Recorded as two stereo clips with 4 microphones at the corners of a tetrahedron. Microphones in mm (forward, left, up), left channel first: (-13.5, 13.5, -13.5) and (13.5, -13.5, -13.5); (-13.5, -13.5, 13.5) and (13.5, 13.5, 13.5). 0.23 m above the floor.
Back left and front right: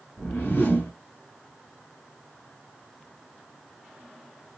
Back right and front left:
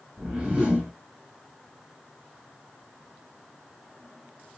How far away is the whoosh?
About 2.5 m.